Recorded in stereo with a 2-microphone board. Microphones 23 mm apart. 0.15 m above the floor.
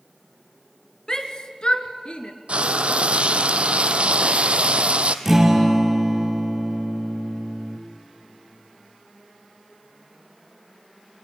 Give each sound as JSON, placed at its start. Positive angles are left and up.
{"t": 1.1, "sound": "a shout", "side_deg": 35, "distance_m": 2.0}
{"t": 2.5, "sound": "frying", "side_deg": -65, "distance_m": 1.1}
{"t": 5.2, "sound": "a guitar", "side_deg": -20, "distance_m": 2.5}